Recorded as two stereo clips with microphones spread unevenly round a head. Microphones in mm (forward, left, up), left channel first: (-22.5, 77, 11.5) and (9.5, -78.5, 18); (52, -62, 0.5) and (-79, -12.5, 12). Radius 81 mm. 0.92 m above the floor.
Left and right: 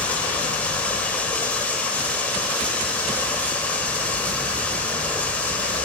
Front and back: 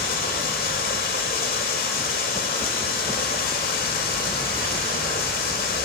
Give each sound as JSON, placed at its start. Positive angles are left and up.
{"t": 0.0, "sound": "running water", "azimuth_deg": 20, "distance_m": 1.4}